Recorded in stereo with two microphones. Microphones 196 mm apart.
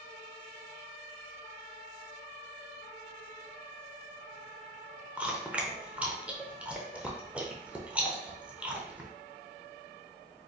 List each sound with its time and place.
5.2 s chewing: 5° right (ahead or behind), 0.5 m